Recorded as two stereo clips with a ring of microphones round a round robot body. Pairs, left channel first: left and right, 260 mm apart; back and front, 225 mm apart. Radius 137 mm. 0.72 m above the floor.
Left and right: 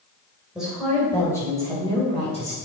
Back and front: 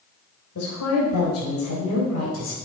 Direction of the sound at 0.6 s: 175° right.